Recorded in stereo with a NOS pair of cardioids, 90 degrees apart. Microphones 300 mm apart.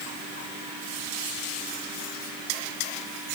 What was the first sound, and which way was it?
Only background noise.